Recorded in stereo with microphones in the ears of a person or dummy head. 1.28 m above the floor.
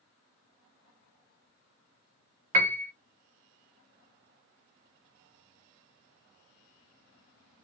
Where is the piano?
35° right (ahead or behind), 0.6 m.